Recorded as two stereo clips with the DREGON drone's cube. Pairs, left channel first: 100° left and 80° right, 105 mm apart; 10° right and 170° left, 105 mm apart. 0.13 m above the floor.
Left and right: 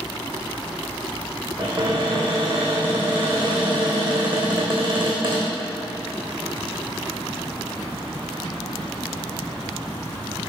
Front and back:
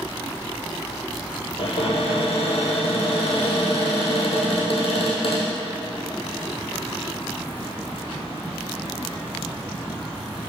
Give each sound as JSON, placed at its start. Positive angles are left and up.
{"t": 1.6, "sound": "a cupboard door", "azimuth_deg": -40, "distance_m": 1.9}